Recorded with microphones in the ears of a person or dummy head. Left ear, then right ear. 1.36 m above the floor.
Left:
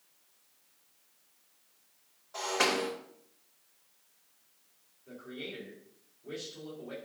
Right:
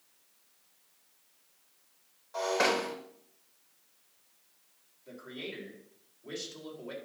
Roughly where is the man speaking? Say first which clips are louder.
Right 1 dB; right.